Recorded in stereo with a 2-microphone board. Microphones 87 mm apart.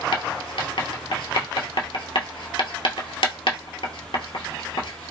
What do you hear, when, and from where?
0.1 s writing: 75° left (ahead or behind), 0.8 m